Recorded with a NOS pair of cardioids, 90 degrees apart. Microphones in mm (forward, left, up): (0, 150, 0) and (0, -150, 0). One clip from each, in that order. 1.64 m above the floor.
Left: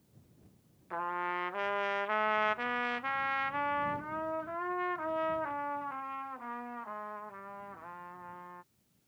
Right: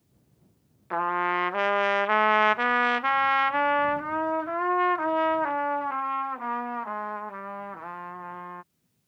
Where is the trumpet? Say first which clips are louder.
Right 9 dB; 45° right.